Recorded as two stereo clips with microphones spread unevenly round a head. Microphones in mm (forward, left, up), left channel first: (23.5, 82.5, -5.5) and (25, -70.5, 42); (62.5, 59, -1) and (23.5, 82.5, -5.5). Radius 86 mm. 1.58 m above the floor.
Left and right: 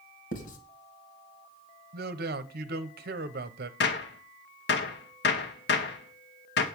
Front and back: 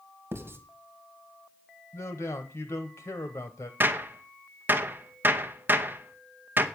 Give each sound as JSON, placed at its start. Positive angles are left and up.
{"t": 0.3, "sound": "writing", "azimuth_deg": 125, "distance_m": 2.5}
{"t": 1.9, "sound": "a man speaking", "azimuth_deg": -70, "distance_m": 0.9}
{"t": 3.8, "sound": "a gunshot", "azimuth_deg": 110, "distance_m": 1.7}